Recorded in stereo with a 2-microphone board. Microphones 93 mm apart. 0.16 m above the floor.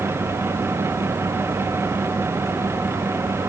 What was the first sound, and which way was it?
Only background noise.